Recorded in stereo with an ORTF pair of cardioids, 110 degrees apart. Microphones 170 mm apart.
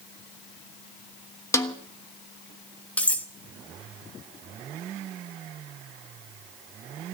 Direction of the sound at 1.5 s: 15° left.